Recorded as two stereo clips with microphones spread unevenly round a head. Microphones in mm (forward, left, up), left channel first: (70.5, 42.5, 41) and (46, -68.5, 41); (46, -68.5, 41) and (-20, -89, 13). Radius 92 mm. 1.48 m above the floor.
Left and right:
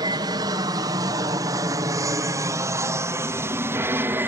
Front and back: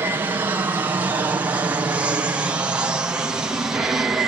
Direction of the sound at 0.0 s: 150° right.